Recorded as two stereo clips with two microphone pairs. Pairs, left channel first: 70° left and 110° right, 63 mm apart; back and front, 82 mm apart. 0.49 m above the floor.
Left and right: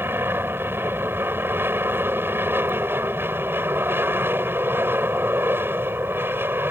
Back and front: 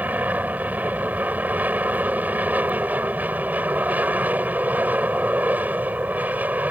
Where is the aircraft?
65° right.